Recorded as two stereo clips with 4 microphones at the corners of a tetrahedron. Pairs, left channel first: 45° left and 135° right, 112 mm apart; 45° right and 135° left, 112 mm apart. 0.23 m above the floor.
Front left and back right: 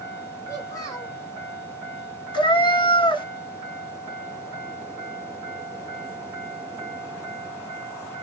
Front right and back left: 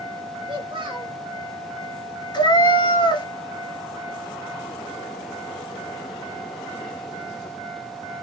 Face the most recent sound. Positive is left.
turn(degrees=0)